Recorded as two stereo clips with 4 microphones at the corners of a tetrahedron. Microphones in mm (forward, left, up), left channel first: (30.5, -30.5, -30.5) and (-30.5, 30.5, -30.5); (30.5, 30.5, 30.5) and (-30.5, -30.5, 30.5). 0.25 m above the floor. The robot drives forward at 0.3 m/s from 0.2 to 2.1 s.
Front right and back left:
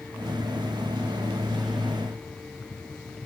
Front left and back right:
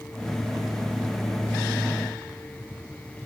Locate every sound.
Only background noise.